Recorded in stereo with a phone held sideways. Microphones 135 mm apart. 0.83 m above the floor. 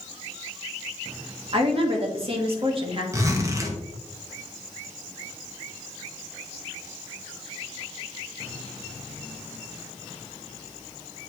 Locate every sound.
1.5 s a woman speaking: 40° right (ahead or behind), 1.6 m
3.1 s a zipper: 20° right (ahead or behind), 1.1 m